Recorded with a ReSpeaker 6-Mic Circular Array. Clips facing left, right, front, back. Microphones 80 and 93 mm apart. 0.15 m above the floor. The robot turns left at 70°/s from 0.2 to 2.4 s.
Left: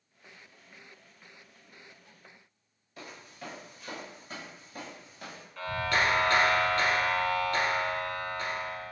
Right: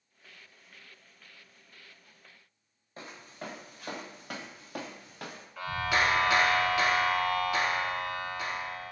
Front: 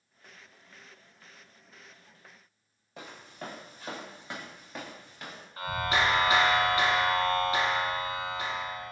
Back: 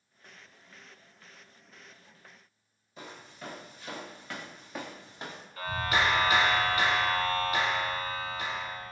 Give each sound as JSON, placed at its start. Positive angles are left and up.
{"t": 3.0, "sound": "footsteps", "azimuth_deg": -30, "distance_m": 1.4}
{"t": 5.6, "sound": "a clap", "azimuth_deg": -15, "distance_m": 1.1}